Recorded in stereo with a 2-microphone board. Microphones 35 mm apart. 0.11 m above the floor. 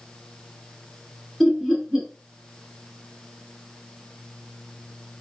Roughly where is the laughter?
Centre.